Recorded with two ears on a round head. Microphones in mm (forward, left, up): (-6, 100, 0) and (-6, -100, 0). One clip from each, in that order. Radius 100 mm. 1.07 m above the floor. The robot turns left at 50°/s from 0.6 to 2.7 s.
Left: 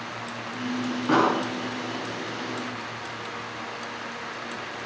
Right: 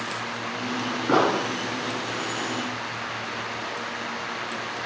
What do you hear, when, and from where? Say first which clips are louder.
1.1 s an explosion: even; 45° left (ahead or behind), 5.5 m; by 1.4 s 30° left (ahead or behind), 5.5 m